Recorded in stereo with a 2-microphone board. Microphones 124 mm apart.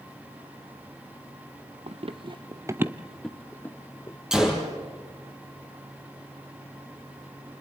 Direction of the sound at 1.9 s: 55° right (ahead or behind).